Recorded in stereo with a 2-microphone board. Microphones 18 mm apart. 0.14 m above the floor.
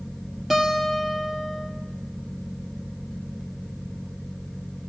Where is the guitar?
10° right (ahead or behind), 1.9 m.